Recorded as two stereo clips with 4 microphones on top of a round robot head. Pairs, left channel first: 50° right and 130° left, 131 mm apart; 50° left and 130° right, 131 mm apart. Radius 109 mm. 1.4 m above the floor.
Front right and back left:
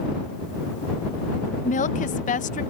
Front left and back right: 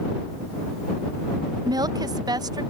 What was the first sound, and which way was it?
A woman speaking, 70° right.